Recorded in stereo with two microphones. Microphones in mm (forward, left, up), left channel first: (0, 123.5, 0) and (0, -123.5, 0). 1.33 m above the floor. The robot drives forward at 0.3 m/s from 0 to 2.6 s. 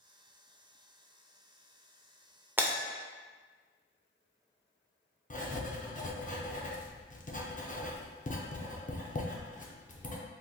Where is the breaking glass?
10° right (ahead or behind), 0.5 m.